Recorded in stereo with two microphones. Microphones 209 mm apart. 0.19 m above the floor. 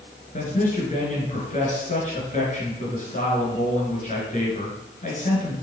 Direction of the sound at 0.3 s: 40° left (ahead or behind).